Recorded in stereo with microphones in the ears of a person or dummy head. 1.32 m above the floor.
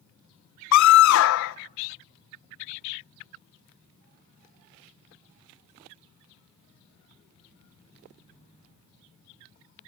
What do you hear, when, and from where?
0.7 s a scream: 70° left (ahead or behind), 0.7 m